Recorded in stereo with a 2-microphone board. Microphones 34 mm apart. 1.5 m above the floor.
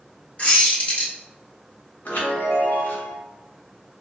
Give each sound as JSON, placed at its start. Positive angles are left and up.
{"t": 0.4, "sound": "a squeak", "side_deg": 40, "distance_m": 1.0}
{"t": 2.0, "sound": "a chime", "side_deg": 60, "distance_m": 0.8}